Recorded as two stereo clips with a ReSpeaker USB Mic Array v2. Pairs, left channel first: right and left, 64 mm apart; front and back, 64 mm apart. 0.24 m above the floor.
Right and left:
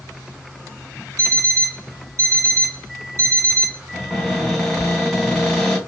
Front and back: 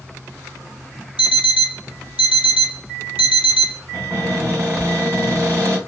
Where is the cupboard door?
175° right, 1.7 m.